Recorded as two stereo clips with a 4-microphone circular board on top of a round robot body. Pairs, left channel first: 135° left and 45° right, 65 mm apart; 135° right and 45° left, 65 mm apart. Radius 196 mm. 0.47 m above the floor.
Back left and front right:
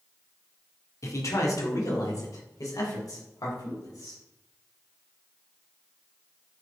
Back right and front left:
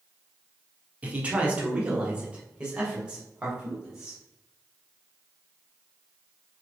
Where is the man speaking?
110° left, 2.0 m; by 4.2 s 125° left, 4 m.